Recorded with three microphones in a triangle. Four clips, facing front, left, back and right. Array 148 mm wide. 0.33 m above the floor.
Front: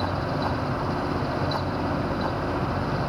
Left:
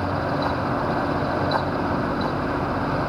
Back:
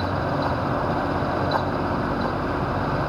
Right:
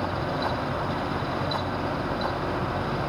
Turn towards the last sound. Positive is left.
No sound to turn to.